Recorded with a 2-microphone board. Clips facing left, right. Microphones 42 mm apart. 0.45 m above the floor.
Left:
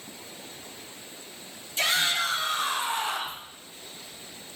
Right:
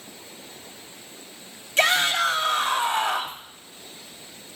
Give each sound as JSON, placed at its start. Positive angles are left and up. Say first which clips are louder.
{"t": 1.8, "sound": "a shout", "louder": "right 5 dB", "side_deg": -70, "distance_m": 2.5}